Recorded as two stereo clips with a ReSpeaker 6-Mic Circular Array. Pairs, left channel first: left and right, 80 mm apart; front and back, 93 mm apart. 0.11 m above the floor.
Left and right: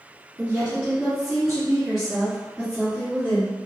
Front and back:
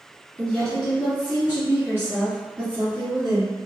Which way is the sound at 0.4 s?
60° right.